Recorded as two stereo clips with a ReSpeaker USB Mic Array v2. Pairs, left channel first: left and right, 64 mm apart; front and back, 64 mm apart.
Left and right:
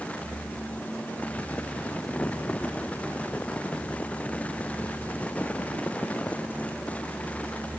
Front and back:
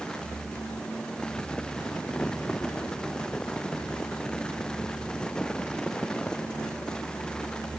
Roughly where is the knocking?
No knocking in this recording.